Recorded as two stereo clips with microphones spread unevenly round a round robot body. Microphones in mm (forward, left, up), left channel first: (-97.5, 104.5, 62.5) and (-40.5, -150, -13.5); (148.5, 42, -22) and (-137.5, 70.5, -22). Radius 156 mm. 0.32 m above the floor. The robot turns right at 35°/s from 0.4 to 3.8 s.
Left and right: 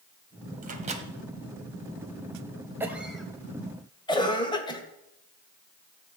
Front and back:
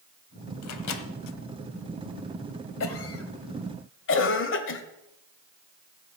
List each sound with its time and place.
0.6 s a microwave: 40° right, 1.1 m; by 1.1 s 25° right, 1.1 m
2.8 s a cough: 20° right, 1.4 m; by 4.8 s 15° left, 1.4 m